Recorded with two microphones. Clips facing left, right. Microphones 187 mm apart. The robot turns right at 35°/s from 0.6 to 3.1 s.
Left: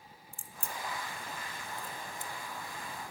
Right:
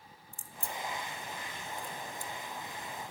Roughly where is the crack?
Right.